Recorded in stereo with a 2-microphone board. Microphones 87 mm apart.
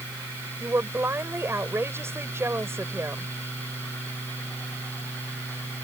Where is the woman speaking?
30° right (ahead or behind).